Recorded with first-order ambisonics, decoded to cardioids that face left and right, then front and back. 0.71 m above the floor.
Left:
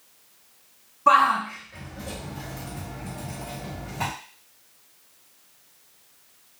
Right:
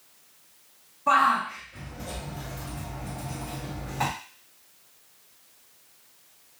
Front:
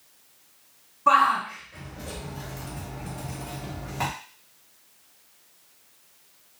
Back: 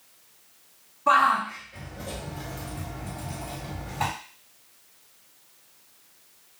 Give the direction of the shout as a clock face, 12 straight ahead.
10 o'clock.